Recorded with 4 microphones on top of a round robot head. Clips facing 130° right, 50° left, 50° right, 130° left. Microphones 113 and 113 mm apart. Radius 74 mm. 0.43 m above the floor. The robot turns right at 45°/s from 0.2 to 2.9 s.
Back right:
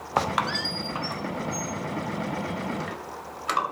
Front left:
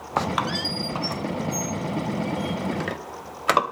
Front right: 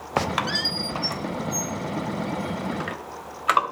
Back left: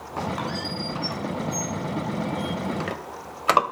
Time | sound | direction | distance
0.2 | a squeak | 45° right | 0.8 m